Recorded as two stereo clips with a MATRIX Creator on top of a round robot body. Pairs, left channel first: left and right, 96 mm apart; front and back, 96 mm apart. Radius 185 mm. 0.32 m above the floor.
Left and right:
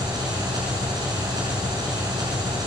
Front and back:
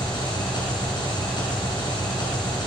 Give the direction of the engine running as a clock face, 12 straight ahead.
1 o'clock.